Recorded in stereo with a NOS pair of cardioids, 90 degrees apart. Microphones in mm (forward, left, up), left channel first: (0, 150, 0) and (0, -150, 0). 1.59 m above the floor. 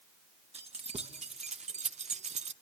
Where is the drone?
No drone in this recording.